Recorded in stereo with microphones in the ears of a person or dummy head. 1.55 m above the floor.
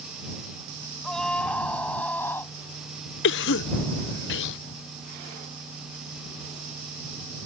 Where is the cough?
65° left (ahead or behind).